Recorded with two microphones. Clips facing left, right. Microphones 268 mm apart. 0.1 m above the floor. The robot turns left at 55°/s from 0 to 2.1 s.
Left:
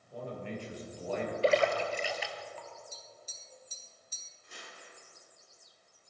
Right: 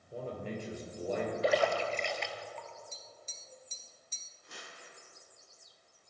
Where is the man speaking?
40° right, 2 m; by 1.3 s 110° right, 2 m.